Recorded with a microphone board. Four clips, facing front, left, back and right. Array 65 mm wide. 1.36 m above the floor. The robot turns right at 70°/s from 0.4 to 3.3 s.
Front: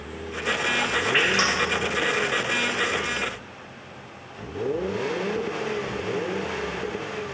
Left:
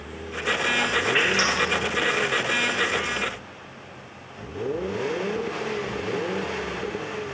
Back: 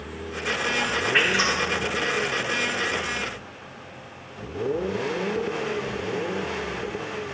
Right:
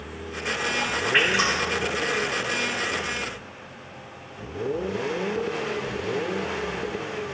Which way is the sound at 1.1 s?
65° right.